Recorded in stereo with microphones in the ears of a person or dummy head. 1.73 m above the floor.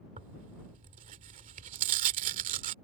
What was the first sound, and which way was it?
Tearing paper, 40° right (ahead or behind).